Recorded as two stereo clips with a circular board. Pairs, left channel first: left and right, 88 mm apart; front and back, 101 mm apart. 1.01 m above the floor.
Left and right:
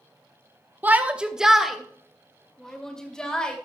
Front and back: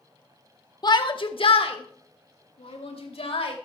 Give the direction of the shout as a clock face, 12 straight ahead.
1 o'clock.